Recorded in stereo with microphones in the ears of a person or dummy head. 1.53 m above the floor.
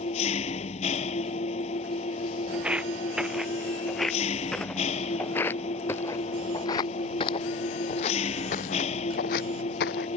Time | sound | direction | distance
0.0 | an engine running | 40° left (ahead or behind) | ?
2.5 | footsteps | centre (ahead or behind) | ?